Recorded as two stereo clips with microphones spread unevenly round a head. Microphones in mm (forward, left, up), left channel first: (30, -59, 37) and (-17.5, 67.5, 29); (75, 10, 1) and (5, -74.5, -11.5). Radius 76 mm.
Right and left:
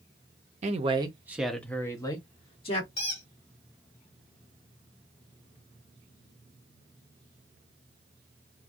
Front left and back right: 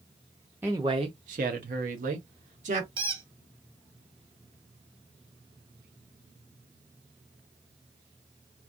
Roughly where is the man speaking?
Behind left.